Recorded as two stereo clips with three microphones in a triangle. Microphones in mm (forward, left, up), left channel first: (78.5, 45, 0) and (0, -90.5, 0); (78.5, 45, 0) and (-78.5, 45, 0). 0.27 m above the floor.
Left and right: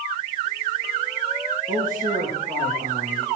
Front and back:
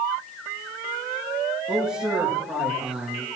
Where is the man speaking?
95° right, 5 m.